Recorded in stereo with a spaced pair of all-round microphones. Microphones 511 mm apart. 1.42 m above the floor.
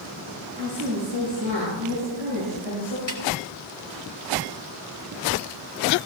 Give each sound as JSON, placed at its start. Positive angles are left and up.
{"t": 0.6, "sound": "a woman speaking", "side_deg": -65, "distance_m": 8.0}
{"t": 3.1, "sound": "a snare drum", "side_deg": 35, "distance_m": 3.0}